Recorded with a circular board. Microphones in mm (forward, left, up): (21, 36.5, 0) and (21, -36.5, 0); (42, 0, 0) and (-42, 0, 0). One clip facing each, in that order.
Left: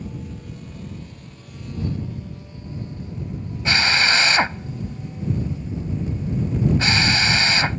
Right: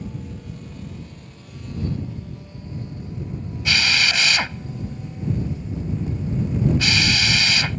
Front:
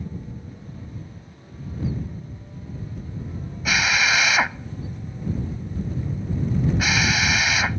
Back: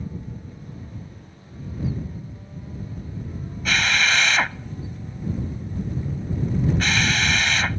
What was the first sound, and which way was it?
A drill, 75° left.